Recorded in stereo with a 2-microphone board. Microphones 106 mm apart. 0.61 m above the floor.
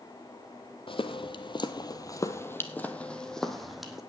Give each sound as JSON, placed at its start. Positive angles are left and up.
{"t": 0.9, "sound": "footsteps", "side_deg": 55, "distance_m": 1.0}